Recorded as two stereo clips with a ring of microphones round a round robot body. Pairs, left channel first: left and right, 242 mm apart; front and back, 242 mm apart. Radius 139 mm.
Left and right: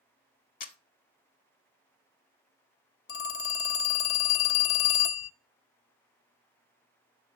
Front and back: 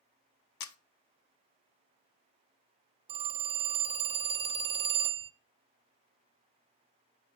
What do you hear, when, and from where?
0.6 s a camera shutter: 30° left, 0.7 m
3.1 s a phone ringing: 115° left, 0.7 m